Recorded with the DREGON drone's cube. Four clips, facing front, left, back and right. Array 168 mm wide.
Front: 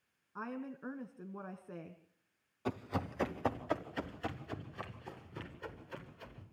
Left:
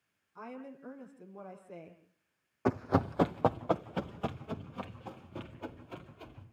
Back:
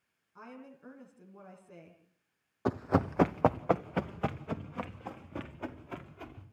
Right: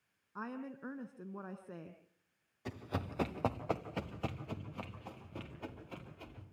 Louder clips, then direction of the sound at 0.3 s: Right 1 dB, front 6 dB; 50° right.